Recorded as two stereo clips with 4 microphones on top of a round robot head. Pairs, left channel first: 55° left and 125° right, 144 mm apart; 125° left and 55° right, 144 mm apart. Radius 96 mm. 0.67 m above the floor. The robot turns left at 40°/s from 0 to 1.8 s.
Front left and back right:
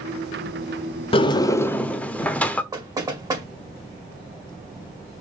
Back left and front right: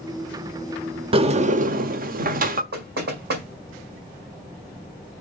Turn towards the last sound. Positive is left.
turn(degrees=-60)